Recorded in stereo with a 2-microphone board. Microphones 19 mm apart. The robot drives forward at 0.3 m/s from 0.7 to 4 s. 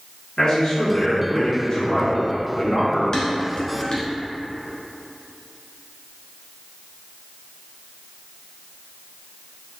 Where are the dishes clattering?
45° left (ahead or behind), 1.2 m.